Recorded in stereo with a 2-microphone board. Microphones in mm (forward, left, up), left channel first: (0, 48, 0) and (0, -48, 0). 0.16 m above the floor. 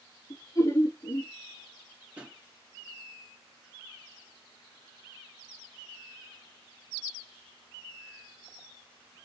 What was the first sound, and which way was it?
Laughter, 35° left (ahead or behind).